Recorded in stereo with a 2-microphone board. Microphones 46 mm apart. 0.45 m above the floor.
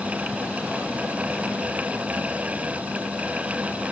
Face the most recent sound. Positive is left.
No sound to turn to.